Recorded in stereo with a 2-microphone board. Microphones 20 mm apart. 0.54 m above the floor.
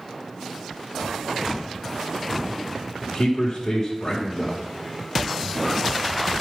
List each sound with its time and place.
3.0 s a man speaking: 40° left (ahead or behind), 1.7 m